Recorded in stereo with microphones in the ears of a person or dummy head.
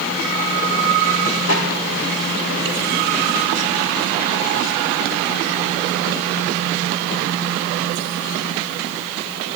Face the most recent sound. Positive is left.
turn(degrees=60)  # may be behind; listen again after turning